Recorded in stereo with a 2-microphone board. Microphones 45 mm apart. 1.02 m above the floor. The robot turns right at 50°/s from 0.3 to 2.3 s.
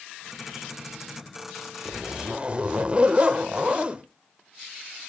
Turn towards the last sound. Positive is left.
turn(degrees=-25)  # may be behind; listen again after turning